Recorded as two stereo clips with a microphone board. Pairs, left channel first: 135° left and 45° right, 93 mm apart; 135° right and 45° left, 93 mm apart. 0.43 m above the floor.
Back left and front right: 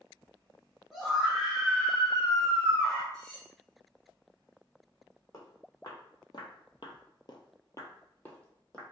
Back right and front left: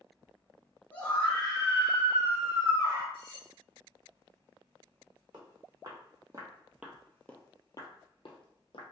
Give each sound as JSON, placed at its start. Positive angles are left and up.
{"t": 0.9, "sound": "a scream", "azimuth_deg": -135, "distance_m": 1.1}
{"t": 3.1, "sound": "cutlery clinking", "azimuth_deg": -140, "distance_m": 1.0}
{"t": 5.3, "sound": "footsteps", "azimuth_deg": 85, "distance_m": 1.5}